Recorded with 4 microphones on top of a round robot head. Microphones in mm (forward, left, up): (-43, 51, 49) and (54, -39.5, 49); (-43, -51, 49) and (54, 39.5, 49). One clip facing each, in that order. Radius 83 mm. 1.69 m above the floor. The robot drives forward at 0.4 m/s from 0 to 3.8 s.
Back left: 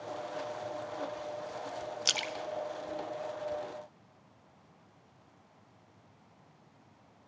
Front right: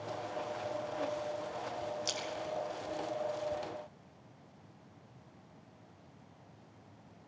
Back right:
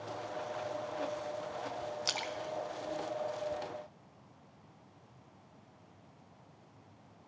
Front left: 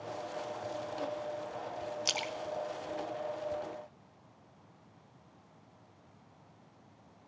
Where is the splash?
115° left, 0.9 m; by 3.8 s 140° left, 1.4 m.